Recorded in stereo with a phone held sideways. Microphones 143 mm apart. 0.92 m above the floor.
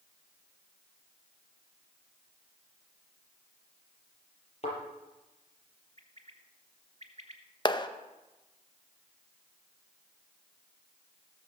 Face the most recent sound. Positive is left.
turn(degrees=30)  # may be behind; listen again after turning